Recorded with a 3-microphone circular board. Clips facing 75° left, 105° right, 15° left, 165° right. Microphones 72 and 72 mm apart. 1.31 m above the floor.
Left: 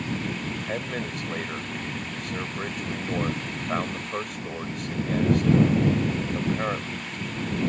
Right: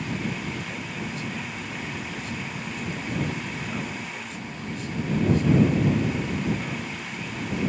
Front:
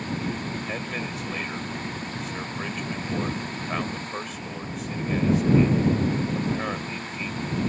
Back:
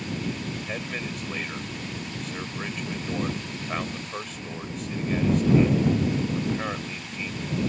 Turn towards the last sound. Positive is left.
turn(degrees=105)